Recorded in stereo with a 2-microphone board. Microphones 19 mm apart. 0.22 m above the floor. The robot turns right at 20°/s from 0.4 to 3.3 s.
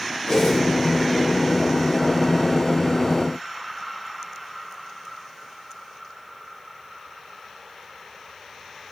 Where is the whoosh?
45° left (ahead or behind), 1.4 m; by 0.6 s 40° left (ahead or behind), 1.4 m.